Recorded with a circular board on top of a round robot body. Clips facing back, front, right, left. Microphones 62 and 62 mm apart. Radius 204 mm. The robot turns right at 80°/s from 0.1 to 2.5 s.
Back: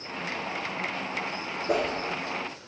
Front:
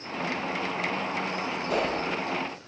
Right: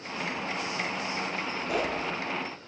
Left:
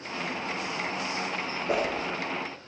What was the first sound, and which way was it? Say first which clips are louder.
A whoosh: back 2 dB, left 3 dB; 145° left.